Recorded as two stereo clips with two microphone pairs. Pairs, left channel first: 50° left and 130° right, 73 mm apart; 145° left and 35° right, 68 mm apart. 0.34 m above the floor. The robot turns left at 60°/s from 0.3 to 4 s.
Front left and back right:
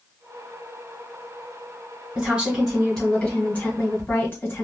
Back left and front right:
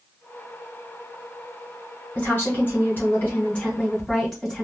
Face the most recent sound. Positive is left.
turn(degrees=65)